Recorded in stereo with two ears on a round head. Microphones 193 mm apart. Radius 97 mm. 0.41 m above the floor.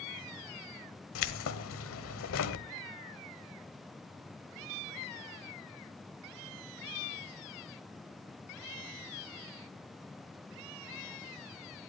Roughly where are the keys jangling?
Left.